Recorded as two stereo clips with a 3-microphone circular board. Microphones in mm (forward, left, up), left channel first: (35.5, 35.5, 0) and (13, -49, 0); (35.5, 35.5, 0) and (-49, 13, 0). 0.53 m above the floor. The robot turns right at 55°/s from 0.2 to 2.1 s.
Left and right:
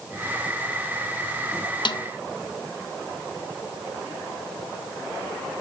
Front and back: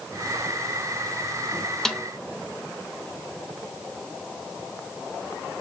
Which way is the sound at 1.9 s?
100° left.